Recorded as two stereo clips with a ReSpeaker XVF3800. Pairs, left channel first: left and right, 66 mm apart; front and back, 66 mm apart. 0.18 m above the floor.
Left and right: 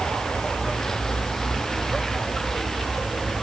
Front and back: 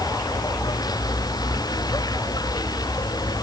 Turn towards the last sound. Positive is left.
turn(degrees=5)